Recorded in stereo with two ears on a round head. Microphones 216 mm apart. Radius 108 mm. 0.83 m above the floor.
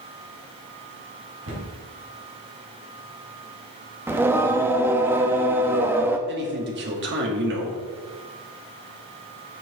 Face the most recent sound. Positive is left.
turn(degrees=-45)  # may be behind; listen again after turning